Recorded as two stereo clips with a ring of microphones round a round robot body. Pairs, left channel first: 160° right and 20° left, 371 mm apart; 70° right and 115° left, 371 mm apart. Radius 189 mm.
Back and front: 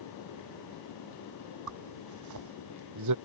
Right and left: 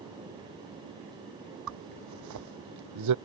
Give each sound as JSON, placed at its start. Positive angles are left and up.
{"t": 1.7, "sound": "a zipper", "azimuth_deg": 65}